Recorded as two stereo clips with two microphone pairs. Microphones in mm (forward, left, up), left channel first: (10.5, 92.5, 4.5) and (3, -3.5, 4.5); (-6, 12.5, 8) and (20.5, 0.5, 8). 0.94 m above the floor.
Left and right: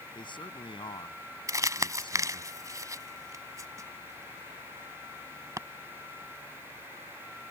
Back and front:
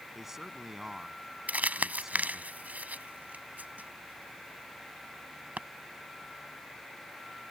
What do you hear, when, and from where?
0.1 s a man speaking: 55° left
1.5 s crumpling: 40° right